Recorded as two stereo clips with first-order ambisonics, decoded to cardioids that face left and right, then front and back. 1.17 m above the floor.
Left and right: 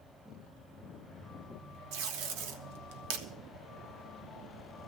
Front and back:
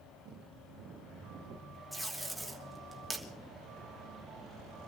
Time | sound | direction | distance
1.9 | tape being pulled | 95° right | 1.4 m